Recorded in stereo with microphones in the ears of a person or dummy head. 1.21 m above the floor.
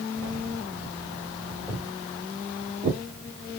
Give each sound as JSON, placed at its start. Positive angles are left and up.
{"t": 1.7, "sound": "footsteps", "side_deg": 0, "distance_m": 1.9}